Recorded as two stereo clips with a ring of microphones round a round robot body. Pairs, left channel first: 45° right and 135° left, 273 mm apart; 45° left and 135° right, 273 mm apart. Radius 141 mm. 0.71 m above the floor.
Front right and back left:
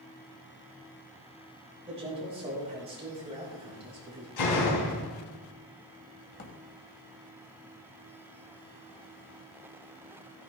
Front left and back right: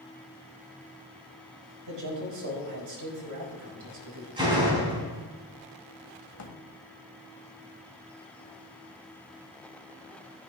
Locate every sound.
1.9 s a man speaking: 155° right, 4.5 m
4.4 s a door slam: 60° right, 3.5 m
6.3 s a drawer: 10° left, 1.9 m